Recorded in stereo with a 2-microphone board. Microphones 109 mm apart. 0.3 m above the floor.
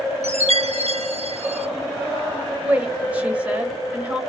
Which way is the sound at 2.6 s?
15° right (ahead or behind).